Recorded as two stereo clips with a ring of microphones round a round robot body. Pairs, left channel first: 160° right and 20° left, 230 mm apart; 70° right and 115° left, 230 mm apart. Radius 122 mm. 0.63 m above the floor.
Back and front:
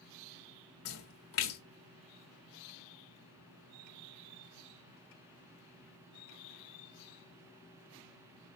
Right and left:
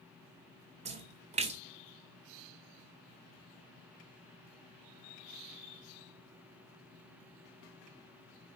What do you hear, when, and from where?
0.8 s a splash: 175° left, 1.6 m